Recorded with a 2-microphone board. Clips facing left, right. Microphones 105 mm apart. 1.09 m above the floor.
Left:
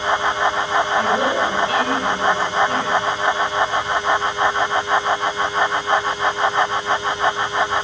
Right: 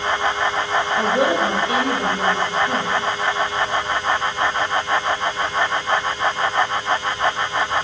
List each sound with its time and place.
1.0 s a woman speaking: 25° right (ahead or behind), 5.5 m